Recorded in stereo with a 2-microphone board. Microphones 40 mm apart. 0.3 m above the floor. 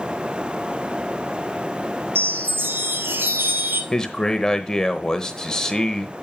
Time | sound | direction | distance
2.1 | a chime | 70° right (ahead or behind) | 1.4 m
3.9 | a man speaking | 15° left (ahead or behind) | 0.9 m